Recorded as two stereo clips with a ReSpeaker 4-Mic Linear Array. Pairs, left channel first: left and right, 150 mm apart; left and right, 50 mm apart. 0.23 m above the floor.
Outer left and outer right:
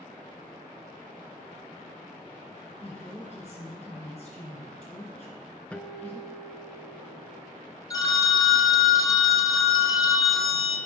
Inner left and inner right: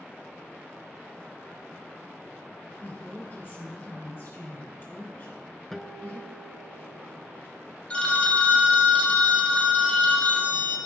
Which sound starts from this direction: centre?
A guitar, at 5.7 s.